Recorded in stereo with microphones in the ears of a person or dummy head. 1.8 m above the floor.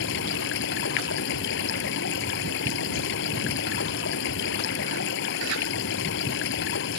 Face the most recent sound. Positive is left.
turn(degrees=60)  # may be behind; listen again after turning